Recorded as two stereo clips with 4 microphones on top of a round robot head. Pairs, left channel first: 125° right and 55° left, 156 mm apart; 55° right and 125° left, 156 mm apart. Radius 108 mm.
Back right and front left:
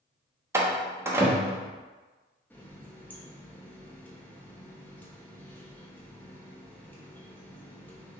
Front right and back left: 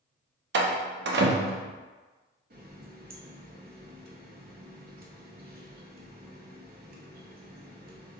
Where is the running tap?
155° left, 0.8 m.